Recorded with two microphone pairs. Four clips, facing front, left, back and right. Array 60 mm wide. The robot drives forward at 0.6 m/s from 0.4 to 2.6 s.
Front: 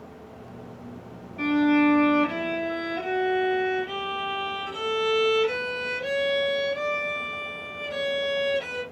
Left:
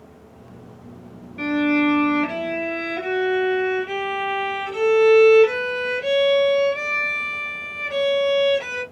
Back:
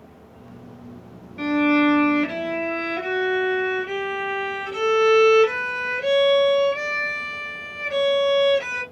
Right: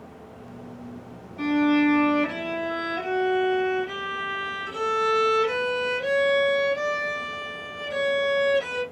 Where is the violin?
130° left, 1.4 m; by 8.8 s 150° left, 1.8 m.